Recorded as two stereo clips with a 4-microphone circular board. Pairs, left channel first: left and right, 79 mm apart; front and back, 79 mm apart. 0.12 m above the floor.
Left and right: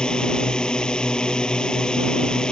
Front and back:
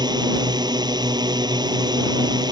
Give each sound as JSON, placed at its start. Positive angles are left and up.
{"t": 0.0, "sound": "a drone", "azimuth_deg": 170}